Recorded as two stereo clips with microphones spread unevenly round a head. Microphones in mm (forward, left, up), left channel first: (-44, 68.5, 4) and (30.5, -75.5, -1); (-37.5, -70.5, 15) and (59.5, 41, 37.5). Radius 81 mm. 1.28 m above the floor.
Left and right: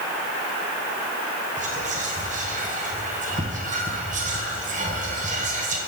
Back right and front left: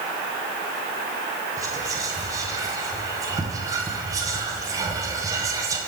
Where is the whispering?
20° right, 1.1 m.